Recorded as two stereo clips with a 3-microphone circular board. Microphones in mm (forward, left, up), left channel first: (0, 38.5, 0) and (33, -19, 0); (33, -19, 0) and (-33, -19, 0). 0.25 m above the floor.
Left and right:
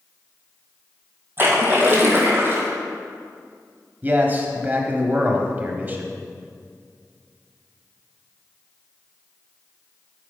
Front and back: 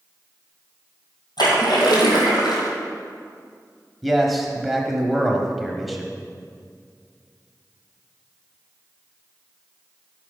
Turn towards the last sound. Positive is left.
turn(degrees=-90)